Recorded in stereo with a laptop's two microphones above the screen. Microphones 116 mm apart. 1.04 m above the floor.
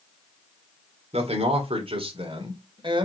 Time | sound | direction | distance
1.1 | a man speaking | 60° right (ahead or behind) | 3 m